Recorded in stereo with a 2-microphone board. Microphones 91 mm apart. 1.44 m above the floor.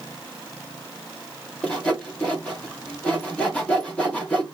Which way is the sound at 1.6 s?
15° left (ahead or behind).